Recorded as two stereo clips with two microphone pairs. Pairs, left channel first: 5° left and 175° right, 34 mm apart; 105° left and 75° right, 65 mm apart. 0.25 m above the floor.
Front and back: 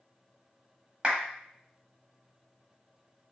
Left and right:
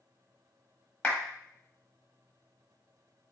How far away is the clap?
About 1.4 m.